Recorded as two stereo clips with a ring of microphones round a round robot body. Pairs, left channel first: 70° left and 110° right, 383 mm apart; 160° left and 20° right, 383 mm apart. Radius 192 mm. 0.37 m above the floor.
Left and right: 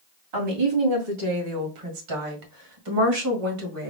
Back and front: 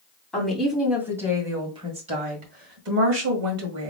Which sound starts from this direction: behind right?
A woman speaking, at 0.3 s.